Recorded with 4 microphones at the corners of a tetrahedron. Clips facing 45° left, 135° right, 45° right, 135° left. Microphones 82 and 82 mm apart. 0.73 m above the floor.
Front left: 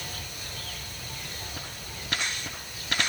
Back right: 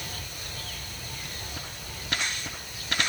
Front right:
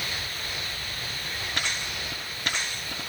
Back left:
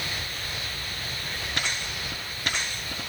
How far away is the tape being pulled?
No tape being pulled in this recording.